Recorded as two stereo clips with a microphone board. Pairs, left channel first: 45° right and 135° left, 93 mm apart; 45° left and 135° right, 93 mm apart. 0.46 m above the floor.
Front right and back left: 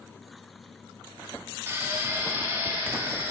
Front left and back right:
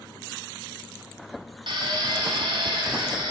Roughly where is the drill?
Behind.